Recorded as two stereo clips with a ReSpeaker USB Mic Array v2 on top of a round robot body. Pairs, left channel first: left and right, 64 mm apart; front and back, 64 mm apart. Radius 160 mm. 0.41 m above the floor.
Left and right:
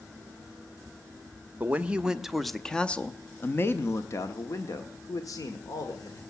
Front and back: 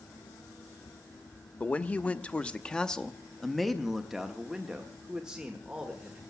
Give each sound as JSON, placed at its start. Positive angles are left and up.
{"t": 1.6, "sound": "a man speaking", "azimuth_deg": -50, "distance_m": 1.1}